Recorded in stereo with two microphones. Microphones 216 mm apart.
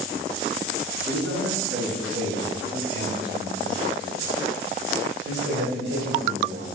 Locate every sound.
1.1 s a man speaking: 85° right, 5.5 m; by 6.7 s 55° right (ahead or behind), 3.5 m